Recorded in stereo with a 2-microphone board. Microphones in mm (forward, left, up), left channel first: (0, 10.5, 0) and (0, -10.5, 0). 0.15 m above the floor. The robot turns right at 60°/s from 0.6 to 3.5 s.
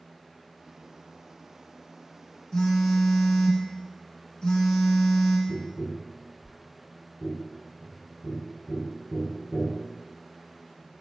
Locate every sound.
2.5 s a phone buzzing: 45° left, 0.6 m; by 5.4 s 105° left, 0.6 m
5.5 s tapping: 65° left (ahead or behind), 1.6 m